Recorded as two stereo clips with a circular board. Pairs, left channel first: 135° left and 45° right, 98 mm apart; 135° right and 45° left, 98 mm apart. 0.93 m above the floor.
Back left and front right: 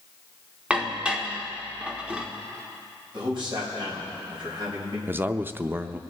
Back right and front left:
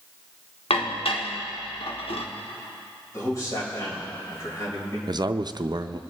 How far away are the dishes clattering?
About 1.3 m.